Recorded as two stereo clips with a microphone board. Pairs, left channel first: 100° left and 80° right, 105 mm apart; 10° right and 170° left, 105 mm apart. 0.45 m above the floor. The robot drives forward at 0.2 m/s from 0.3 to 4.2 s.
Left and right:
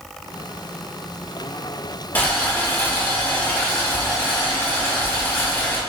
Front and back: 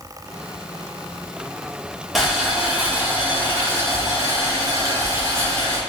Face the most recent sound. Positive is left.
turn(degrees=145)